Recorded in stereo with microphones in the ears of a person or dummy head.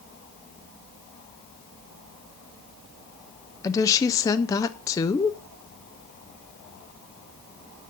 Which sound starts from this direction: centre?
A woman speaking, at 3.6 s.